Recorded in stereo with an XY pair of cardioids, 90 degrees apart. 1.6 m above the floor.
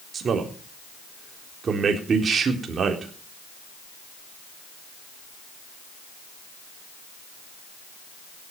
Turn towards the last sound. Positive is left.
turn(degrees=-50)